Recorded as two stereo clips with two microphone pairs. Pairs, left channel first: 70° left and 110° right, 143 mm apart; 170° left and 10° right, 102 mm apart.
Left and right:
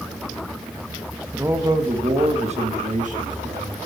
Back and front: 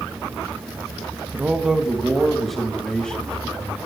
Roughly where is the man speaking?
Ahead right.